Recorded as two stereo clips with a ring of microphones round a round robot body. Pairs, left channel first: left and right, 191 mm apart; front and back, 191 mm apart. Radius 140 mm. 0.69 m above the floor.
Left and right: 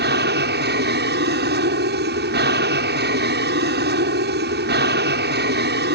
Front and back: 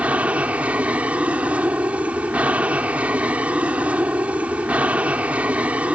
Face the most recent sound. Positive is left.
turn(degrees=-95)